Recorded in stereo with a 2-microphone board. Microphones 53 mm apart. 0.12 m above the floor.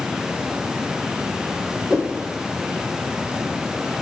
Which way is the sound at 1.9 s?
15° right (ahead or behind).